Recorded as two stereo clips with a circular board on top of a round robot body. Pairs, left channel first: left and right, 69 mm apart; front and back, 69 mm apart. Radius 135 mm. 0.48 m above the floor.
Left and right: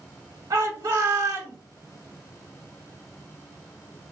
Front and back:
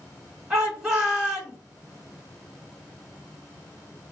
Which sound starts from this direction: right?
A shout, at 0.5 s.